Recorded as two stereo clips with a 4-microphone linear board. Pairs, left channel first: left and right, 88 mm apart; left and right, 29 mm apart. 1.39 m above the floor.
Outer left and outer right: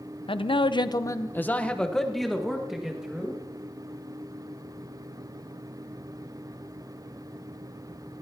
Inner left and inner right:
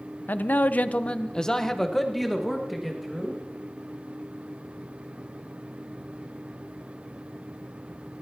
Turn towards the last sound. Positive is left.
turn(degrees=-10)  # may be behind; listen again after turning